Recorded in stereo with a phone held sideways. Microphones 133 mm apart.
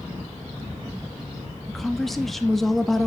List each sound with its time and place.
1.7 s a woman speaking: centre (ahead or behind), 1.1 m